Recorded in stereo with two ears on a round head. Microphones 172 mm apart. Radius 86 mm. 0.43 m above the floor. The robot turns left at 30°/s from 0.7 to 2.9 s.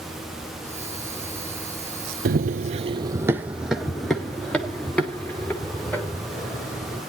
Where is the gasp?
No gasp in this recording.